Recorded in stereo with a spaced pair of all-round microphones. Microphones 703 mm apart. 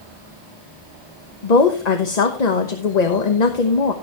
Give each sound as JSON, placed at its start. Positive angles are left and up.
{"t": 1.4, "sound": "a woman speaking", "side_deg": 70, "distance_m": 1.2}